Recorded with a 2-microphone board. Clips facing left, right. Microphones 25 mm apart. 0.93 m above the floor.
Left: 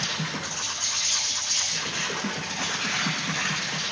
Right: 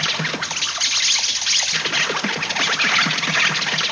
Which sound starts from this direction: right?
An insect, at 0.0 s.